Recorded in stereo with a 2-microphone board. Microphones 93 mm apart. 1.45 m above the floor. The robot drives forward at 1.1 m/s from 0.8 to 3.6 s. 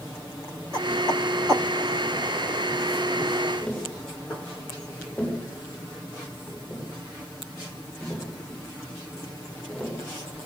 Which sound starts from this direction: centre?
Tapping, at 3.6 s.